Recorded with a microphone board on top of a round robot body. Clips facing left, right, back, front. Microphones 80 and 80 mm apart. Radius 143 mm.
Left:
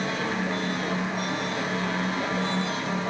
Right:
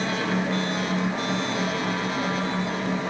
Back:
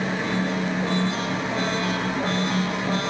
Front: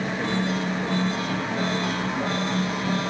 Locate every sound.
Only background noise.